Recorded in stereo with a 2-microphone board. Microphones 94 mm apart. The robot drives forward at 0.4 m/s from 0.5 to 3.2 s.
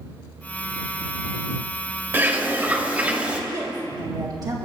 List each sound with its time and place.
2.1 s a bird: 20° right (ahead or behind), 1.1 m; by 3.4 s 15° right (ahead or behind), 1.5 m
3.5 s a woman speaking: 40° right (ahead or behind), 1.4 m